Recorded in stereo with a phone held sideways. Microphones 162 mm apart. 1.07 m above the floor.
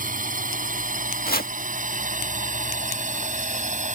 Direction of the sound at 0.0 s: 60° right (ahead or behind).